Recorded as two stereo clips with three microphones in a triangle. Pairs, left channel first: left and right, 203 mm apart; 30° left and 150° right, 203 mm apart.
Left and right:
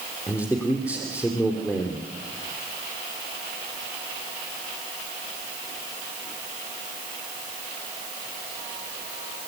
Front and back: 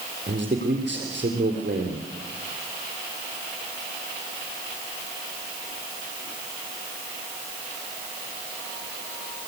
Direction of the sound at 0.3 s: 170° left.